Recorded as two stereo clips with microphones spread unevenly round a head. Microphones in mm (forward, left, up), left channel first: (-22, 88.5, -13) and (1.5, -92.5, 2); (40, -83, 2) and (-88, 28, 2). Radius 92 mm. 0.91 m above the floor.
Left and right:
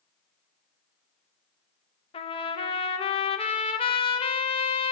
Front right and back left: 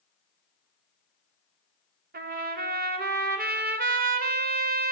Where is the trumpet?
145° left, 0.7 m.